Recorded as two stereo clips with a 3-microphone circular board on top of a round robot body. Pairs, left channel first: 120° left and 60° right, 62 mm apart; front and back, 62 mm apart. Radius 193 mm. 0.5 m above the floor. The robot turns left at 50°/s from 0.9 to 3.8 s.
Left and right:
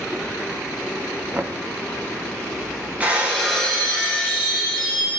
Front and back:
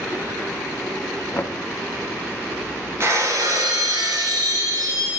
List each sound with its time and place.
1.3 s knocking: 15° right, 0.8 m; by 1.6 s 25° right, 0.8 m
3.0 s breaking glass: 130° right, 1.3 m; by 5.2 s 170° right, 1.3 m